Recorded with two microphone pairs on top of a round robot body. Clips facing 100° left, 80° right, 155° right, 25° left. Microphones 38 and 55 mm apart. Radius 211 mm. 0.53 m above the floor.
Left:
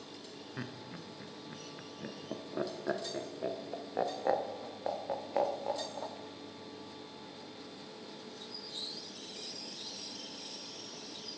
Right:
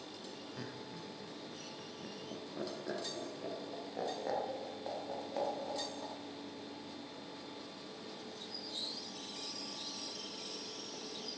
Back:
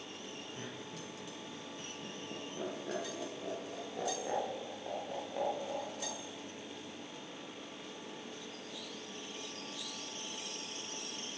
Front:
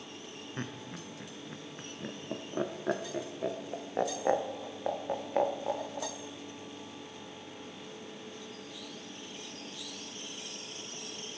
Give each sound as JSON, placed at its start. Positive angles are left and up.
{"t": 0.6, "sound": "laughter", "azimuth_deg": 45, "distance_m": 1.3}